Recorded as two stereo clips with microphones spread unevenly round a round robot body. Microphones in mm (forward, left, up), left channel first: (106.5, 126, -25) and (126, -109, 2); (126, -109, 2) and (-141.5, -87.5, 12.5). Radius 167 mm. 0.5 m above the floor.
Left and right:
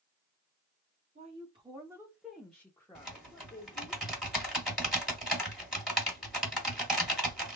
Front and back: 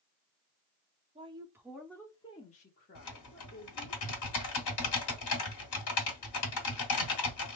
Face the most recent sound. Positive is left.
turn(degrees=5)